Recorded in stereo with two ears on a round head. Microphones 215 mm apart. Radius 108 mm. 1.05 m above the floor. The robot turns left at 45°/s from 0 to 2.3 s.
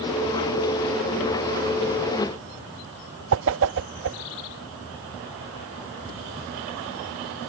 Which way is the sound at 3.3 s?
55° right (ahead or behind).